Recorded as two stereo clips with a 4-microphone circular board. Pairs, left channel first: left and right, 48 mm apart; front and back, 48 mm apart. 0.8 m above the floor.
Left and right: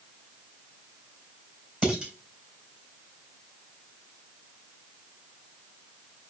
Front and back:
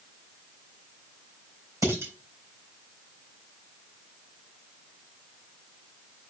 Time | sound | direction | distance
1.8 | dishes clattering | 165° right | 3 m